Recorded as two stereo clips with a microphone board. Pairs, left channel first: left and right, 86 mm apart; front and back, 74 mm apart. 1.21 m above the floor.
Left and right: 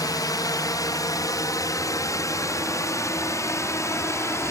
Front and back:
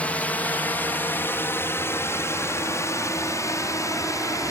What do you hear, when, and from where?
0.0 s a drone: 65° left; by 4.5 s 40° left